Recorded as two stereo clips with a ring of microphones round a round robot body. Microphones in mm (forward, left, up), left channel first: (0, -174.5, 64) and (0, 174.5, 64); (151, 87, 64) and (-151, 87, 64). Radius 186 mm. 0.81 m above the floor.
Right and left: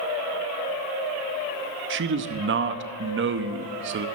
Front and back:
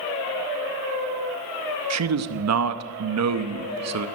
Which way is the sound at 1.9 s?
145° left.